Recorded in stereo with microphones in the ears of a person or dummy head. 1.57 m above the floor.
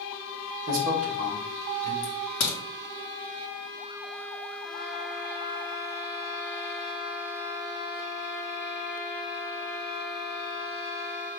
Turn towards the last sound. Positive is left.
turn(degrees=45)  # may be behind; listen again after turning